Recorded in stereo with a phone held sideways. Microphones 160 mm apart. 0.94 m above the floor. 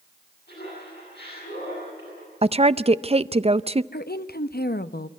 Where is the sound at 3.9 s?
70° left (ahead or behind), 0.8 m.